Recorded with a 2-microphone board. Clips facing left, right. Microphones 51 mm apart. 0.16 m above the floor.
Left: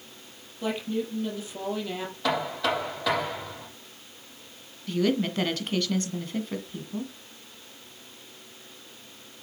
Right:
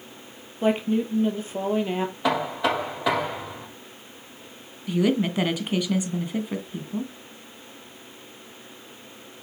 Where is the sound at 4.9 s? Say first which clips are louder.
Right 3 dB; 15° right (ahead or behind), 1.7 m.